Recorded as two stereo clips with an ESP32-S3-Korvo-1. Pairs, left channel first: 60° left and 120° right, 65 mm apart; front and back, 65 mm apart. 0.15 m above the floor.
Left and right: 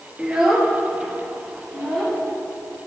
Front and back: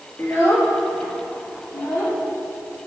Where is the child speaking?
45° right, 1.4 m; by 2.2 s 25° right, 3.5 m.